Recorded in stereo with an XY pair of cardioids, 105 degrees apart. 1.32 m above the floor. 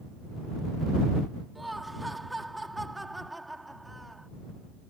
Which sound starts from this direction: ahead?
Laughter, at 1.6 s.